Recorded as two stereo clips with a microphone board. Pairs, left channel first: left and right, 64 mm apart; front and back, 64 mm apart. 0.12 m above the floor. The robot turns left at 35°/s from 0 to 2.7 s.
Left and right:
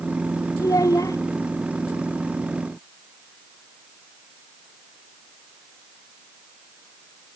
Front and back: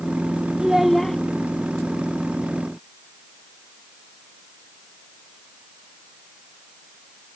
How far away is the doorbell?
No doorbell in this recording.